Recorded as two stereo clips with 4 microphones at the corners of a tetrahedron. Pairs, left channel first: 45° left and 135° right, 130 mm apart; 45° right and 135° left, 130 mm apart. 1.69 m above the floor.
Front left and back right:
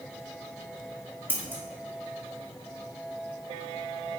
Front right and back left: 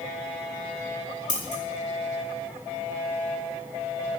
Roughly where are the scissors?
Ahead right.